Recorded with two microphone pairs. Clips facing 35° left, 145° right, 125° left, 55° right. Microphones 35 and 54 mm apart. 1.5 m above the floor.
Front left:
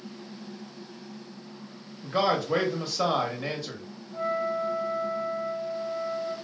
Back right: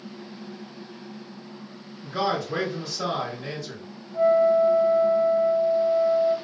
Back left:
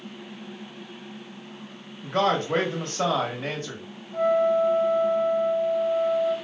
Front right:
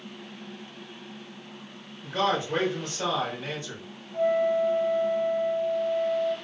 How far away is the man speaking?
About 1.0 m.